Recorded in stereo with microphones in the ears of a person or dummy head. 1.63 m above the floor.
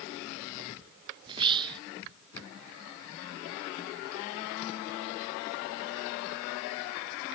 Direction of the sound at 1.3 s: 30° right (ahead or behind).